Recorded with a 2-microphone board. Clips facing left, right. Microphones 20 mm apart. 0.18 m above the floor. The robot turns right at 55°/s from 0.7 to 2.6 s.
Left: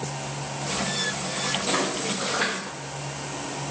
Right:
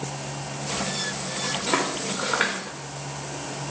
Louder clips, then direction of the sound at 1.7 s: Even; 45° right (ahead or behind).